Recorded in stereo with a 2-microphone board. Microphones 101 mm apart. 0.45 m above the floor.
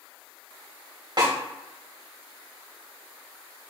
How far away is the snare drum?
About 2.5 m.